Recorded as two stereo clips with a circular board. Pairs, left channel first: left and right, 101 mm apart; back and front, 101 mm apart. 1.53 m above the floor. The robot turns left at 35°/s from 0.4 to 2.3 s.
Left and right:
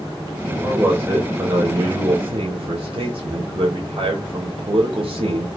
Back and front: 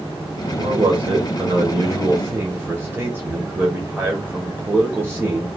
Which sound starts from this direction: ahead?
A man speaking, at 0.5 s.